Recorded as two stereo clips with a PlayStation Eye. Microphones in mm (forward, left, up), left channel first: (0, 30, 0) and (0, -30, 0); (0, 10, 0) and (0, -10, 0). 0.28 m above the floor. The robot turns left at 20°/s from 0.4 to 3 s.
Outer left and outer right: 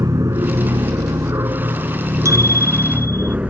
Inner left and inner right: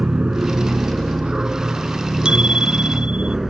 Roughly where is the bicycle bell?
Right.